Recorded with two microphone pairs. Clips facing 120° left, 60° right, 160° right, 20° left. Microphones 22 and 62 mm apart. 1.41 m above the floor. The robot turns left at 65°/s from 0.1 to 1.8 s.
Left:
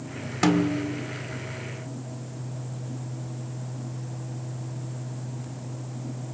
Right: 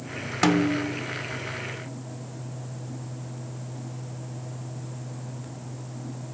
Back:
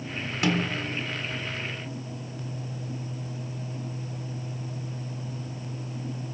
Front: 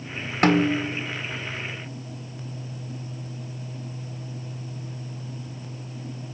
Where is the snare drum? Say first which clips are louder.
Right 1 dB, front 8 dB; 20° left, 1.4 m; by 1.0 s 15° right, 1.4 m.